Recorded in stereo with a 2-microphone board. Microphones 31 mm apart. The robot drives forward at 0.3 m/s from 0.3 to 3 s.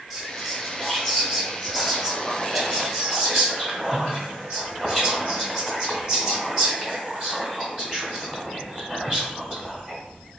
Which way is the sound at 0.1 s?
15° right (ahead or behind).